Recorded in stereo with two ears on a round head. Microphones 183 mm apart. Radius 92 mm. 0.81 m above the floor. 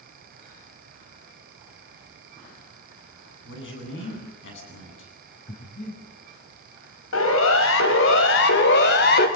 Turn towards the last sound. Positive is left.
turn(degrees=50)  # may be behind; listen again after turning